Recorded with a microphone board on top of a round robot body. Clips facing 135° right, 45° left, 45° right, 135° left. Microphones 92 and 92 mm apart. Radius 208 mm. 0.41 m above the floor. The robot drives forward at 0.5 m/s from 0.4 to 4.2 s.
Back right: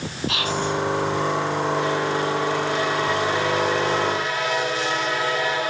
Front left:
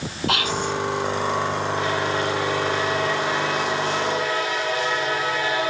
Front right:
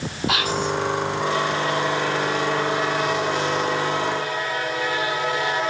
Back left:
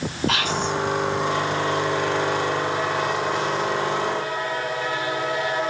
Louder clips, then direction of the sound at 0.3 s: Front left 1 dB, front right 3 dB; 40° left.